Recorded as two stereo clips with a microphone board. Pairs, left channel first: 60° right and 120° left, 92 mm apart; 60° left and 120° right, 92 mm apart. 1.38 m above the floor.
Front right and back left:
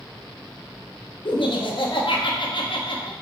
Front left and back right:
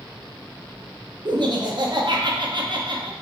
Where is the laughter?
85° right, 1.0 m.